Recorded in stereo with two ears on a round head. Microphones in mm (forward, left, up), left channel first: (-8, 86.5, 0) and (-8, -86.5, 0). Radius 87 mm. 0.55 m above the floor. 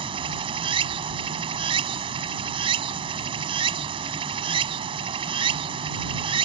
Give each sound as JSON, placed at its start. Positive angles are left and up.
{"t": 0.0, "sound": "running water", "side_deg": -30}